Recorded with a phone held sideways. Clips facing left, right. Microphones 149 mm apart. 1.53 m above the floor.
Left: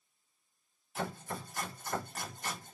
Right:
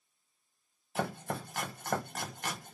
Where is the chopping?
75° right (ahead or behind), 0.7 m.